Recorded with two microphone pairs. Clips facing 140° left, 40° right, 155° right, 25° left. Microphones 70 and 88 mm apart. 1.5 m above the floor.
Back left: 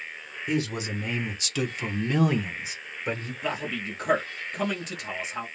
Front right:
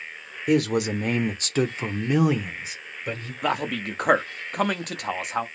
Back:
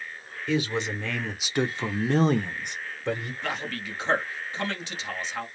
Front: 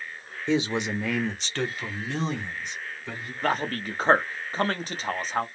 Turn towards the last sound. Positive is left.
turn(degrees=-20)